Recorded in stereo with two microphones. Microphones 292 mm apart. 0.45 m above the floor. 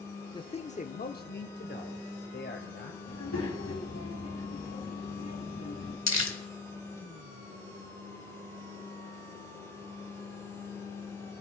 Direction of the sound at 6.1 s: 75° left (ahead or behind).